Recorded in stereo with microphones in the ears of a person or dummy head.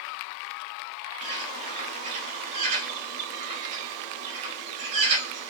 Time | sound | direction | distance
1.2 | a bird | 40° right (ahead or behind) | 3 m